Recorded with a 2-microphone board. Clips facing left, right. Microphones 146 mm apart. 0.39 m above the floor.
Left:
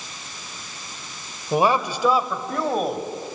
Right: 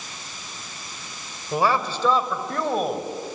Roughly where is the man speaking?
Left.